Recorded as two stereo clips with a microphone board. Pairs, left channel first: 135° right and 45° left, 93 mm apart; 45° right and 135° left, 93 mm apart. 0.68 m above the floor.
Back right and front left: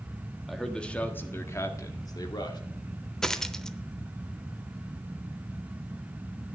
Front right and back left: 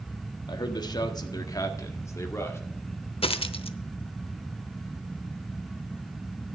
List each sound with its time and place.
0.5 s a man speaking: 45° right, 1.3 m; by 2.6 s 105° right, 1.9 m
3.2 s a dropped coin: 50° right, 0.7 m